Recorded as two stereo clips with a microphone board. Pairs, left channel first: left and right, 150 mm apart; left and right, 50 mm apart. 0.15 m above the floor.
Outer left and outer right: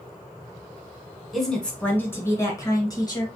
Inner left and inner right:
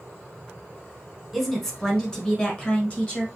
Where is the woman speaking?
Centre (ahead or behind), 1.1 m; by 3.2 s 30° left (ahead or behind), 1.9 m.